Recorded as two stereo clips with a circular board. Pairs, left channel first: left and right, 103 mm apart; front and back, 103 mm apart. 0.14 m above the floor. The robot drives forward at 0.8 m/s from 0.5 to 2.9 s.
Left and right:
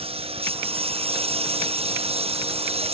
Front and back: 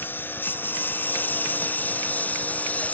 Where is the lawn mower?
70° right; by 3.0 s 75° right.